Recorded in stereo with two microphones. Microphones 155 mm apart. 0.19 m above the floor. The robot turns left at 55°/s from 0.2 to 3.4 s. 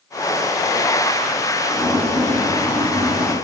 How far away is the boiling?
About 5.5 m.